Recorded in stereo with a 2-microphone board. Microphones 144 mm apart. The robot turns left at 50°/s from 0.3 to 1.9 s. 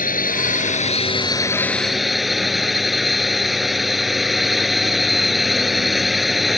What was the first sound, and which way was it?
A drone, 80° left.